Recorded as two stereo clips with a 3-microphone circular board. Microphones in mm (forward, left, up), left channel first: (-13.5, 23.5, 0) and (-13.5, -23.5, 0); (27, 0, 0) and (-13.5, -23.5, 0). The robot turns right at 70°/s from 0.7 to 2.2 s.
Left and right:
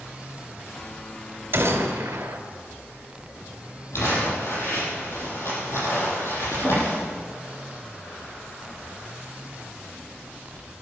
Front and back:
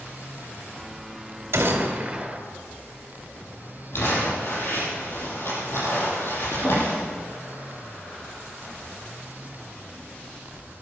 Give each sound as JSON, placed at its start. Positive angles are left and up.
{"t": 1.5, "sound": "a gunshot", "azimuth_deg": -120, "distance_m": 2.5}
{"t": 3.9, "sound": "crumpling", "azimuth_deg": 65, "distance_m": 6.0}